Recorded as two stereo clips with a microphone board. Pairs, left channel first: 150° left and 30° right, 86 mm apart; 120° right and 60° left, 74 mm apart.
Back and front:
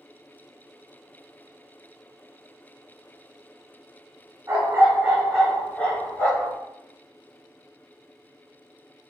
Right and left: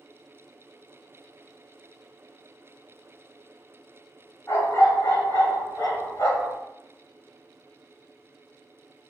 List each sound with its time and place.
4.5 s a dog barking: 80° right, 1.6 m; by 6.5 s 155° right, 2 m